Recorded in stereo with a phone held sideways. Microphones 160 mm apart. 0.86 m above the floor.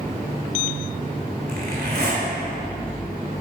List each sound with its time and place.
1.5 s a zipper: 85° right, 2.5 m